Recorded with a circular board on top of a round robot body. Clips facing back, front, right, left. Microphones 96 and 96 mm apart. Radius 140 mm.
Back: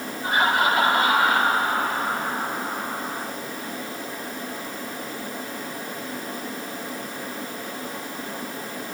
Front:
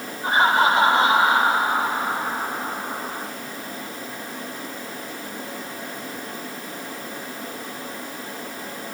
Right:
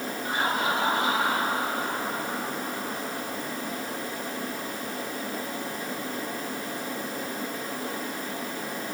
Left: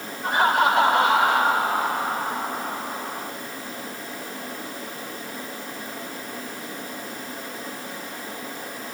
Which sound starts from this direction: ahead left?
Laughter, at 0.2 s.